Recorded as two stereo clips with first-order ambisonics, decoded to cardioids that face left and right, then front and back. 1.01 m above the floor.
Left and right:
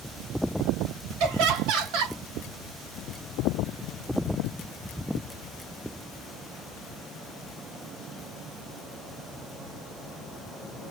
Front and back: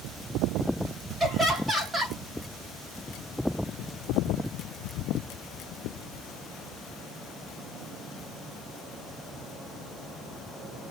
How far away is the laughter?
About 2.5 m.